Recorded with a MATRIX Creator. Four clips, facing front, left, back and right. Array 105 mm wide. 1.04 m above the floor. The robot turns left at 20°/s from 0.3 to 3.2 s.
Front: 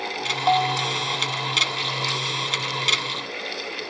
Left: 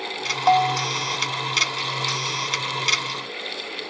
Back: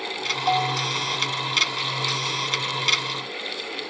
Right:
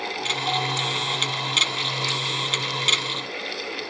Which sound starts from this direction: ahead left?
A bell, at 0.5 s.